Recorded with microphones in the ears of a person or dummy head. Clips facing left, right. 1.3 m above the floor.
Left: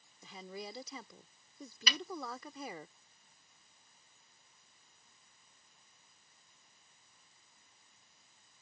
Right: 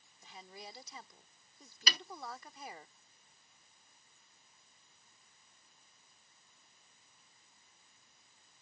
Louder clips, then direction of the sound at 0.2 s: Left 6 dB; 80° left.